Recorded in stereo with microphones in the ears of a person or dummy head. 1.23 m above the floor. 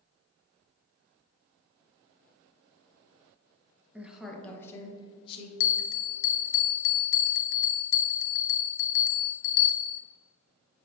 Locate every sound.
3.9 s a woman speaking: 5° right (ahead or behind), 1.2 m; by 5.5 s 35° left (ahead or behind), 1.4 m
5.6 s a bell: 65° left (ahead or behind), 0.5 m